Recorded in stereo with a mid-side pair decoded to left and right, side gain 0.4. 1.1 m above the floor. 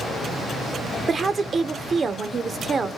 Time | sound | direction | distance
1.1 | a woman speaking | 40° right | 0.6 m